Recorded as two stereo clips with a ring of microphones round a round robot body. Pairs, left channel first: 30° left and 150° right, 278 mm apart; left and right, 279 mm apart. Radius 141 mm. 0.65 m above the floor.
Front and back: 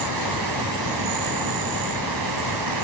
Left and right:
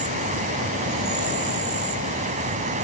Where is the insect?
155° right.